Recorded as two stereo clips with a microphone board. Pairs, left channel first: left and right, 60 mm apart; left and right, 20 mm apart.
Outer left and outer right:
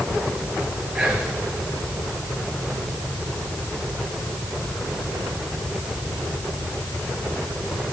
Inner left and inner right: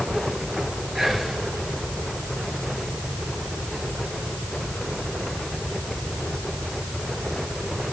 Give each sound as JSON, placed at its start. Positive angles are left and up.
{"t": 0.9, "sound": "whispering", "side_deg": -15, "distance_m": 2.0}